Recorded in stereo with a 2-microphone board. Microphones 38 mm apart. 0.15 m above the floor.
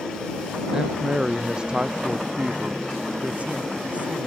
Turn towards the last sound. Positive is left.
turn(degrees=-35)  # may be behind; listen again after turning